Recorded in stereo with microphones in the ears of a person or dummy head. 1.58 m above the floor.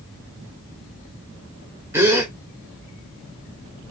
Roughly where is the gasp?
Centre.